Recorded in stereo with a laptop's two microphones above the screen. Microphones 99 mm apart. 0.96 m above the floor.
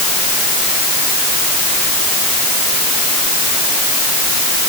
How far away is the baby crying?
I don't hear a baby crying.